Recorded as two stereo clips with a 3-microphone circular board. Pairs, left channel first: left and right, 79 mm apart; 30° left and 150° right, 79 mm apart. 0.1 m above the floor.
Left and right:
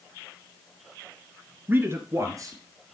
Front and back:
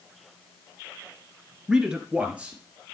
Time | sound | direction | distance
1.7 | a man speaking | 80° right | 1.6 m